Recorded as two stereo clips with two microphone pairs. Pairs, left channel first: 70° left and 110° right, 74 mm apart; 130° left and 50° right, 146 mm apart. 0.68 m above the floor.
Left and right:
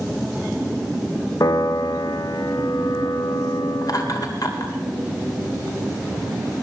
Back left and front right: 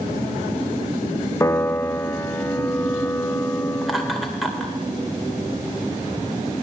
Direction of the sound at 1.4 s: 60° left.